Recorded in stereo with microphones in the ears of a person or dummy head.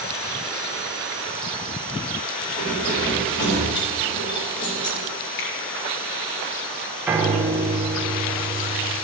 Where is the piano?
10° right (ahead or behind), 1.2 m.